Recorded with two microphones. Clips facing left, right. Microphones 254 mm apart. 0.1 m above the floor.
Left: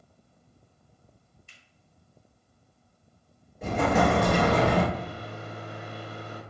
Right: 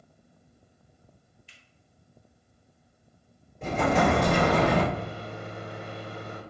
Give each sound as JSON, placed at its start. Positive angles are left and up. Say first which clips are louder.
{"t": 1.5, "sound": "a finger snap", "louder": "right 1 dB", "side_deg": 50, "distance_m": 1.5}
{"t": 3.6, "sound": "an explosion", "louder": "even", "side_deg": 5, "distance_m": 2.0}
{"t": 4.9, "sound": "a microwave", "louder": "right 1 dB", "side_deg": -25, "distance_m": 1.2}